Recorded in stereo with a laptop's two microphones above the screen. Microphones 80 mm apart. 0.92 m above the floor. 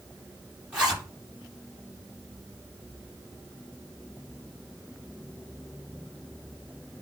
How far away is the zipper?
About 6.5 m.